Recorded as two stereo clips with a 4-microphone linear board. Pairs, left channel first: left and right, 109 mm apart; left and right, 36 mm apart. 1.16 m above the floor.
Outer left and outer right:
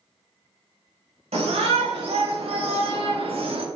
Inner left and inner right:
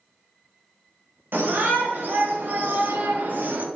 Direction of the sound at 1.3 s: 70° right (ahead or behind).